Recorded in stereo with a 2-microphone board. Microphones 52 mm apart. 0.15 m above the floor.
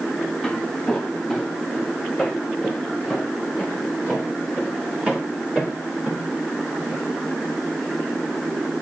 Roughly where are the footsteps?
Centre.